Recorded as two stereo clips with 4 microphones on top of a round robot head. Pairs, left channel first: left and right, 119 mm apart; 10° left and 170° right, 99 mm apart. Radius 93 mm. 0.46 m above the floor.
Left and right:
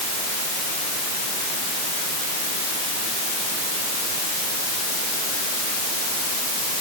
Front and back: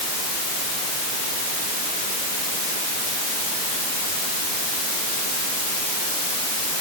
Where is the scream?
I don't hear a scream.